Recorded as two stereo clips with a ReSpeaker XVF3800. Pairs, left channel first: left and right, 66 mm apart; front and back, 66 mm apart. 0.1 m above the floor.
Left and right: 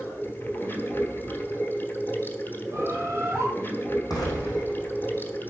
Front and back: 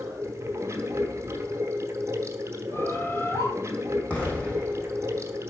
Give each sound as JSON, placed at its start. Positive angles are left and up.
{"t": 0.0, "sound": "running water", "azimuth_deg": 145, "distance_m": 1.1}
{"t": 2.7, "sound": "a bird", "azimuth_deg": -45, "distance_m": 1.6}
{"t": 4.1, "sound": "an explosion", "azimuth_deg": 70, "distance_m": 3.5}